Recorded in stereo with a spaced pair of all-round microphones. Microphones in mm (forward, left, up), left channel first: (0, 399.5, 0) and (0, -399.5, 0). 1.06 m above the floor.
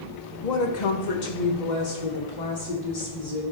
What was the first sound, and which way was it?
A woman speaking, 55° left (ahead or behind).